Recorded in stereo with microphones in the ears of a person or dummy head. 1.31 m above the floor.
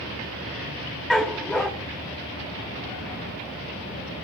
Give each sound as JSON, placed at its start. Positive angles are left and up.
{"t": 1.1, "sound": "a dog barking", "side_deg": 0, "distance_m": 1.0}